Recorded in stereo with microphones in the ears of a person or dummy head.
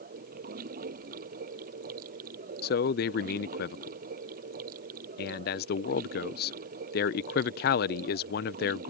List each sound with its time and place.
0.0 s running water: 45° right (ahead or behind)
2.6 s a man speaking: 45° left (ahead or behind)